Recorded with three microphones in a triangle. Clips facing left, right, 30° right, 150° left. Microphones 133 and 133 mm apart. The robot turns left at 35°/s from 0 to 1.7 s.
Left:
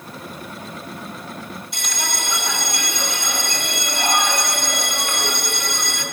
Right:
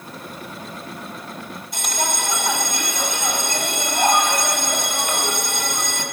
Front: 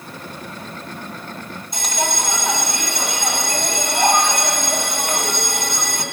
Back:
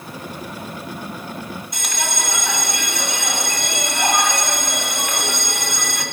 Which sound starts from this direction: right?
A bell, at 1.7 s.